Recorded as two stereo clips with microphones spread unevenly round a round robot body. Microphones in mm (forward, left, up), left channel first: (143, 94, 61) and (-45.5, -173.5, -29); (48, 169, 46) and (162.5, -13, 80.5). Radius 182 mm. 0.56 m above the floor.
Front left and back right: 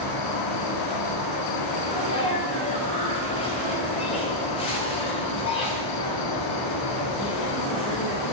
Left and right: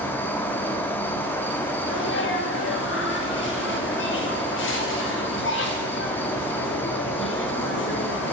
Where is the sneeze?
135° left, 2.5 m.